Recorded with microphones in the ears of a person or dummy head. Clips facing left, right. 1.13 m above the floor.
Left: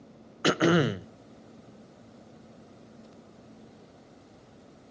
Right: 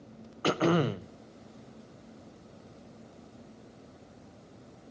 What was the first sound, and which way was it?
Throat clearing, 15° left (ahead or behind).